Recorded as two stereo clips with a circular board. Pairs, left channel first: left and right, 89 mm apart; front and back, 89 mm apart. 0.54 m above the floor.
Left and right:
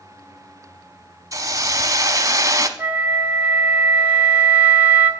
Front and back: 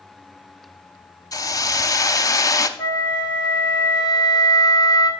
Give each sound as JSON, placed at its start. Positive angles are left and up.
{"t": 1.3, "sound": "a hiss", "azimuth_deg": -45, "distance_m": 0.8}
{"t": 2.8, "sound": "a flute", "azimuth_deg": -20, "distance_m": 1.0}